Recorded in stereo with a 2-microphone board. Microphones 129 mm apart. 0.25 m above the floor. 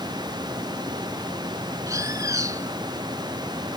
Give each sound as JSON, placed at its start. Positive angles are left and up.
{"t": 1.9, "sound": "a bird", "side_deg": -25}